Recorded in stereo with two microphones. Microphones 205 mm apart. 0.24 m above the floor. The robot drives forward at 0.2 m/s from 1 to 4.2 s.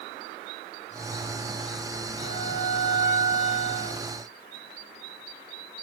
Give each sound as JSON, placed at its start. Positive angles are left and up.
{"t": 2.2, "sound": "a violin", "side_deg": 80, "distance_m": 2.5}